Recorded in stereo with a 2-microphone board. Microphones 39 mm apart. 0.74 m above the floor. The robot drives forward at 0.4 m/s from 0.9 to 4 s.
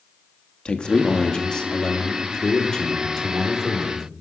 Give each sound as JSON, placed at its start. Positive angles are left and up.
{"t": 0.7, "sound": "a man speaking", "side_deg": 25, "distance_m": 1.0}